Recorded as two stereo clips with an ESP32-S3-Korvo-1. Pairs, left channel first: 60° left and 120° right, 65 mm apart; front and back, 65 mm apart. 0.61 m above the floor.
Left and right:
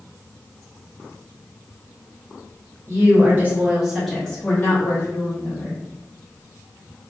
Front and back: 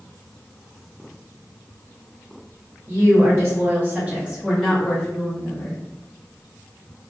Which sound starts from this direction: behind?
A woman speaking, at 2.9 s.